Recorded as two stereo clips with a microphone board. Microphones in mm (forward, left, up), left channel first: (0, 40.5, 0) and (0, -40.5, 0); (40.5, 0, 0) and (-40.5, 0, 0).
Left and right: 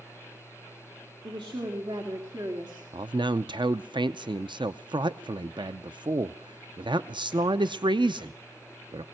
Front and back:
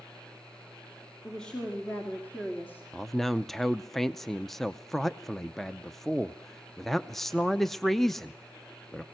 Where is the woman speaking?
80° right, 2.5 m; by 2.8 s 65° right, 3 m.